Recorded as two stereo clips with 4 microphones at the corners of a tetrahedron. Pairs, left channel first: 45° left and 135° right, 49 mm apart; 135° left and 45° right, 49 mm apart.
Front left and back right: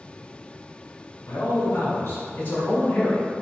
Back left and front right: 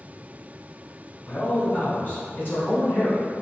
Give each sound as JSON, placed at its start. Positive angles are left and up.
{"t": 1.3, "sound": "a man speaking", "azimuth_deg": 70, "distance_m": 1.7}